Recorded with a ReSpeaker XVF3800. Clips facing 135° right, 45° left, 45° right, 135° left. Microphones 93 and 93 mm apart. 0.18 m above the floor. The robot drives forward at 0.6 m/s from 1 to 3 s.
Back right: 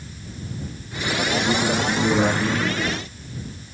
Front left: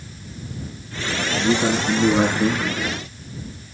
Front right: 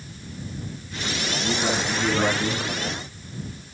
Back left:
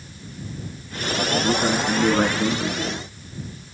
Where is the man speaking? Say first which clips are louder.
Front left 4 dB, back left 4 dB; 75° left, 8 m; by 2.7 s 80° left, 7.5 m.